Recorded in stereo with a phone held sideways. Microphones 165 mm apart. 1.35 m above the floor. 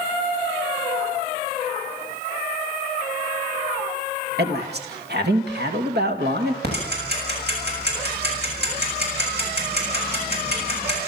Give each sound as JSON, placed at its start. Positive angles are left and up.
{"t": 4.4, "sound": "a man speaking", "side_deg": -70, "distance_m": 2.5}
{"t": 6.6, "sound": "ticking", "side_deg": -70, "distance_m": 7.0}